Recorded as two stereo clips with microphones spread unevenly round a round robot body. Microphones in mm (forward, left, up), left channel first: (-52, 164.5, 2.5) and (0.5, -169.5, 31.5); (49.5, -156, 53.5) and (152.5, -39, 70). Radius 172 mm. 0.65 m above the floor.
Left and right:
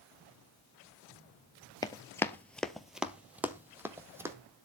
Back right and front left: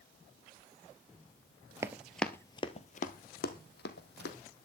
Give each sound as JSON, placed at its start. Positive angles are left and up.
{"t": 1.8, "sound": "running footsteps", "azimuth_deg": 25, "distance_m": 0.6}